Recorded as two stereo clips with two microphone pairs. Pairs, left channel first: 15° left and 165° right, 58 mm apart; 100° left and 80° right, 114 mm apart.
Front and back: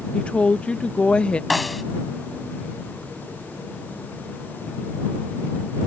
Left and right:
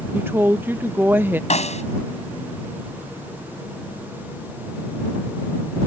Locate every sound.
0.1 s a woman speaking: 25° right
1.5 s a snare drum: 100° left